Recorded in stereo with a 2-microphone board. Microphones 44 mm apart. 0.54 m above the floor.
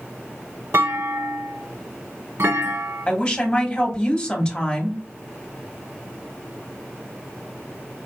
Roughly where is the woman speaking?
Centre.